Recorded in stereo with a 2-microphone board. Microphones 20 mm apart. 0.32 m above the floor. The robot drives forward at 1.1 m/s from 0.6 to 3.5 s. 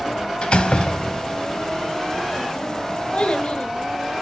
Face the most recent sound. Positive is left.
turn(degrees=40)  # may be behind; listen again after turning